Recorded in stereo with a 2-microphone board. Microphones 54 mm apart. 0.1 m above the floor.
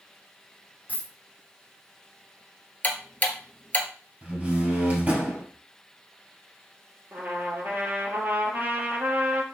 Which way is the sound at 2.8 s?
30° left (ahead or behind).